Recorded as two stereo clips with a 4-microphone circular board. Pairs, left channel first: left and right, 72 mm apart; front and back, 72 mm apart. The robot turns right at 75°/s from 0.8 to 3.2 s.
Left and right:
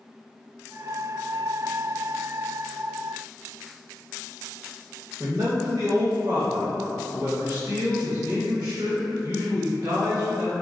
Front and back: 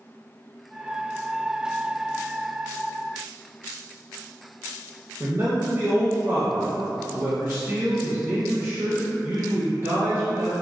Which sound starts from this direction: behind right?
A man speaking, at 5.2 s.